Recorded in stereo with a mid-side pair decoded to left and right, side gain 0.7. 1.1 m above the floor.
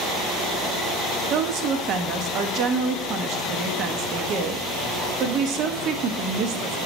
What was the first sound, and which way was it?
A woman speaking, 55° right.